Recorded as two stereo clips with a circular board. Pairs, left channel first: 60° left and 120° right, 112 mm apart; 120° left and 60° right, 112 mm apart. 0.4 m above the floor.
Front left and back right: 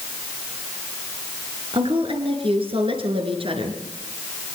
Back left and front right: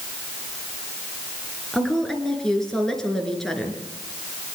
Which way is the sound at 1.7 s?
155° right.